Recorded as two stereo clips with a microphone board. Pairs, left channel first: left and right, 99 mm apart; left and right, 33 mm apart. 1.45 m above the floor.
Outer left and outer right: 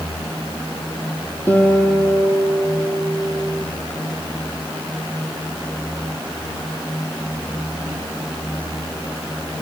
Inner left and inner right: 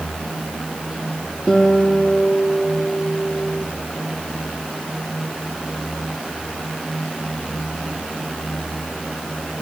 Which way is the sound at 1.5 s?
20° left (ahead or behind).